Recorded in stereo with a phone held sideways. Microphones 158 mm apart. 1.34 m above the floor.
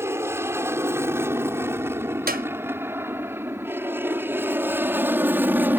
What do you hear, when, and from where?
0.0 s an aircraft: 15° right (ahead or behind); by 5.8 s 10° right (ahead or behind)
2.3 s a clap: 70° right (ahead or behind)